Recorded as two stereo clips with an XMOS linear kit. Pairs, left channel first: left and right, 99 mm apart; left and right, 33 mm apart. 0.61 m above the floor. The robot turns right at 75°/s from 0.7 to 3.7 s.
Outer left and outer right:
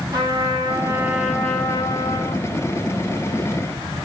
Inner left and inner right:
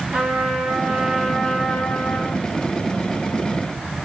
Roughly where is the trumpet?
Ahead right.